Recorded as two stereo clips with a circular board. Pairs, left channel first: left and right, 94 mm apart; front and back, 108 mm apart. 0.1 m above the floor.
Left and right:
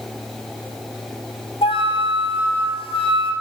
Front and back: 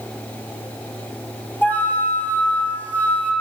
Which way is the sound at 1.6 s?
75° left.